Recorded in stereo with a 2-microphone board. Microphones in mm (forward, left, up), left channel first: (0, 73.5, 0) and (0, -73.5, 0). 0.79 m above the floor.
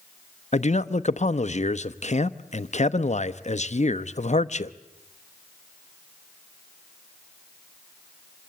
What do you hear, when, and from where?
0.5 s a man speaking: 50° left (ahead or behind), 0.8 m